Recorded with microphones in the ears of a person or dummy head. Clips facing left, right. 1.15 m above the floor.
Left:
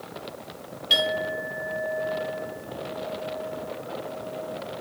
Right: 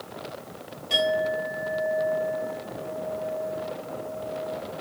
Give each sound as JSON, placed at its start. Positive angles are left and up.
{"t": 0.9, "sound": "a clink", "side_deg": 20, "distance_m": 8.0}